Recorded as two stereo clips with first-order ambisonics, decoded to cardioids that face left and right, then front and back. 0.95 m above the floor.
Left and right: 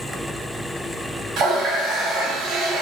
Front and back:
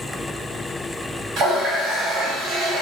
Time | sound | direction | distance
1.4 | a running tap | 135° right | 1.4 m